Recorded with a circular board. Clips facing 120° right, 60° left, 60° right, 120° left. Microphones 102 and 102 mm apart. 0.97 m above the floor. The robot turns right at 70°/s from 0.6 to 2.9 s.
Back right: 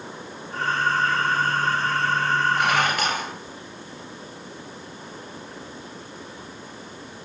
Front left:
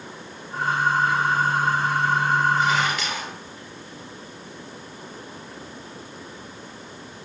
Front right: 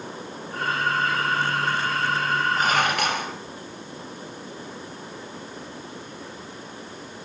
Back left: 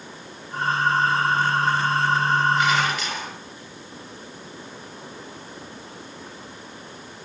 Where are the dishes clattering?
110° right, 3 m; by 3.3 s 85° right, 3 m.